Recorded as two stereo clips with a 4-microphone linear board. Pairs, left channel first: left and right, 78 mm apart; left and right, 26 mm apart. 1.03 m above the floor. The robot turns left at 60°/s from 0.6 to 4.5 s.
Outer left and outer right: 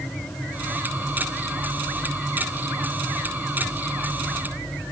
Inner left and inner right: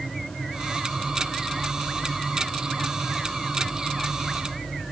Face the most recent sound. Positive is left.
No sound to turn to.